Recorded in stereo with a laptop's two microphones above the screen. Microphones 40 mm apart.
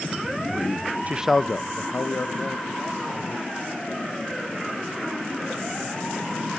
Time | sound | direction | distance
1.1 | a man speaking | 40° right (ahead or behind) | 0.5 m